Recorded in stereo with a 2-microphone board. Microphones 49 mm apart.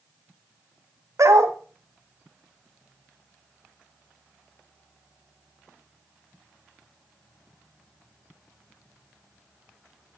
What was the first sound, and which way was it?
A dog barking, 70° right (ahead or behind).